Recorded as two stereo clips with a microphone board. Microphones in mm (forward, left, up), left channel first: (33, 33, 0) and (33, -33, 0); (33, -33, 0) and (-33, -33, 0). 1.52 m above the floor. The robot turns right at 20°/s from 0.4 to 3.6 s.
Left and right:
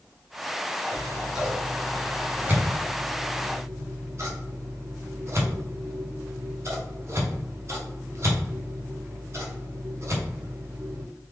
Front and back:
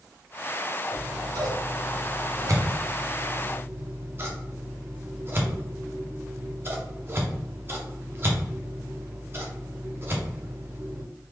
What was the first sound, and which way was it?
Scissors, straight behind.